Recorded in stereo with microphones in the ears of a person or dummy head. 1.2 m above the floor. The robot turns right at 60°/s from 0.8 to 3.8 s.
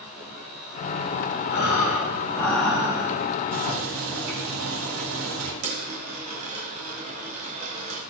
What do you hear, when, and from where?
1.5 s breathing: 120° left, 5 m; by 3.1 s 145° right, 5 m
3.5 s boiling: 70° right (ahead or behind), 4 m; by 5.5 s 85° right, 4 m
5.6 s a dropped coin: 45° right (ahead or behind), 1.6 m